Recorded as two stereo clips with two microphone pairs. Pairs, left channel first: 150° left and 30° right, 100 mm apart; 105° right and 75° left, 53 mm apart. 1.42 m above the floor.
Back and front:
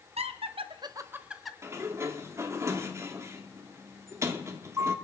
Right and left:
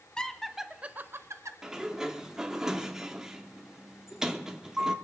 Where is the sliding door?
5° left, 1.1 m.